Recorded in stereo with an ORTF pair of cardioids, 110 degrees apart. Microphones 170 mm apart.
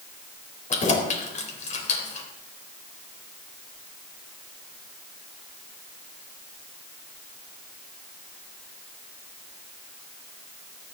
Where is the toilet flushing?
No toilet flushing in this recording.